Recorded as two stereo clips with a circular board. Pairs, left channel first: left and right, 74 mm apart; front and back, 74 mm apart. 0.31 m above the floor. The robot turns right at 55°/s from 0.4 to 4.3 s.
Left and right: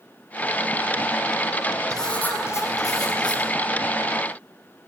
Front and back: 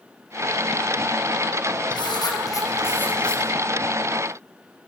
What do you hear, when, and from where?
1.9 s writing: 5° left, 6 m; by 3.4 s 85° left, 6 m